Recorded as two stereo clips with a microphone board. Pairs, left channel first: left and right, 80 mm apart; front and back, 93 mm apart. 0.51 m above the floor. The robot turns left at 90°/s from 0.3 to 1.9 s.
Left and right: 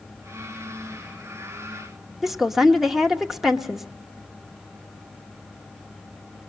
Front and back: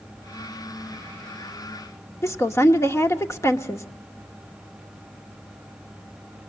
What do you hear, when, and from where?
2.2 s a woman speaking: 10° right, 0.9 m